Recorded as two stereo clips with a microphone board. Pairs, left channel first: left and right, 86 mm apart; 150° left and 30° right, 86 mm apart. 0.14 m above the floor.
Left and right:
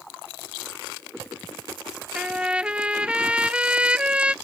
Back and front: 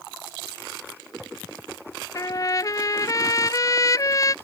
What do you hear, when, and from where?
2.1 s a trumpet: 165° right